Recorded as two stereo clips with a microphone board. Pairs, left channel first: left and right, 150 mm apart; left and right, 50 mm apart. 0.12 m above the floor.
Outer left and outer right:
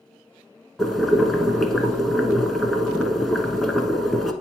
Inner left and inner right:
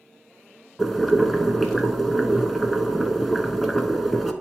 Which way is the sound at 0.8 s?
Centre (ahead or behind).